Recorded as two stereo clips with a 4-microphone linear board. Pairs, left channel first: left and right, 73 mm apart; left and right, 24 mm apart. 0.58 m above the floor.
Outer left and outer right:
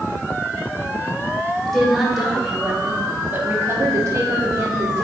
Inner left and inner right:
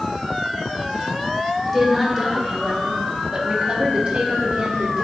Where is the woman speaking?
5° left (ahead or behind), 2 m; by 5.0 s 45° right (ahead or behind), 1.6 m.